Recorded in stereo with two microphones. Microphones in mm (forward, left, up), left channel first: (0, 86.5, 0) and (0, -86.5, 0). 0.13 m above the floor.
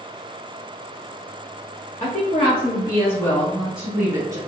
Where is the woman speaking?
45° left (ahead or behind), 1.6 m; by 4.4 s 25° right (ahead or behind), 1.3 m.